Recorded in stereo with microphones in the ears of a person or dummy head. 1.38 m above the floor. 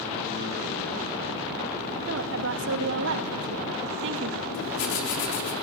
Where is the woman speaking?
65° right (ahead or behind), 2.0 m.